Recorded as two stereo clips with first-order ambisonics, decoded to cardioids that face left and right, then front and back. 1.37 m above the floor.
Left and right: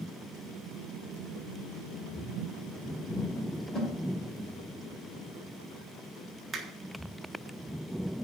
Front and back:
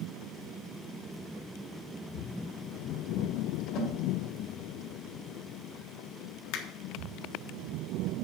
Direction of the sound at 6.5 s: 20° right.